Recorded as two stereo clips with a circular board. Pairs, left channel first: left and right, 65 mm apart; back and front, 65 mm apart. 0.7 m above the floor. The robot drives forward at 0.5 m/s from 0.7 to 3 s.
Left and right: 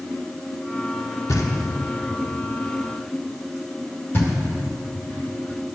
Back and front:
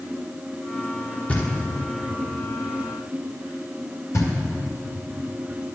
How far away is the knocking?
About 1.3 m.